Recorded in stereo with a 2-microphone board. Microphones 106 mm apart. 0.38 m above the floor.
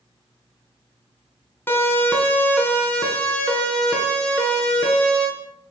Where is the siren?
20° left (ahead or behind), 4 m; by 5.3 s 10° left (ahead or behind), 7 m.